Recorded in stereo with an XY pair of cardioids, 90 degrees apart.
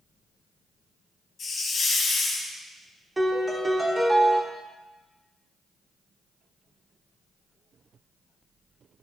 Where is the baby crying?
No baby crying in this recording.